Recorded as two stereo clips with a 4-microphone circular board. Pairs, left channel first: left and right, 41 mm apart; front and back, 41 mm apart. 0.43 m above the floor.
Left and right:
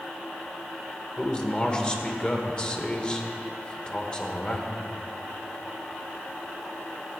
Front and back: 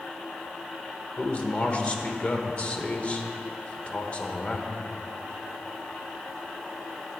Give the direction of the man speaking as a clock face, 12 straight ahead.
11 o'clock.